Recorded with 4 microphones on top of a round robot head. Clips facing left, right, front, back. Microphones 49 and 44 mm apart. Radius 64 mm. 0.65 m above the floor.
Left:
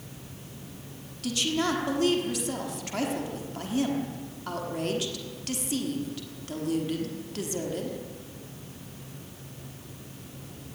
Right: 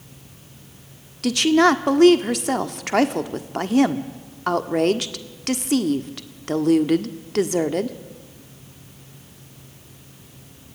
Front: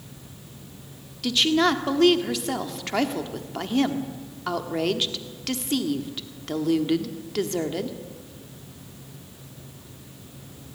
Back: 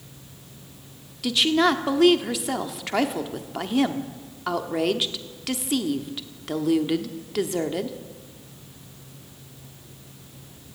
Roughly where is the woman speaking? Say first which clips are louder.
Right 12 dB, back 1 dB; right.